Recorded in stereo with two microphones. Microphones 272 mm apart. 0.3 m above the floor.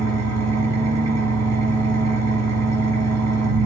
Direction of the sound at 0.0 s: 70° right (ahead or behind).